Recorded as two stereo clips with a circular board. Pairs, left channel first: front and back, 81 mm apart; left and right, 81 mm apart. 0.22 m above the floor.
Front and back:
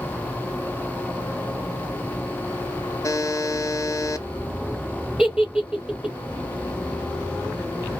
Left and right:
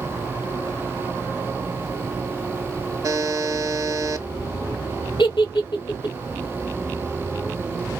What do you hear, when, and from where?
3.0 s a buzzer: 50° right, 0.7 m
5.2 s a giggle: 105° left, 0.8 m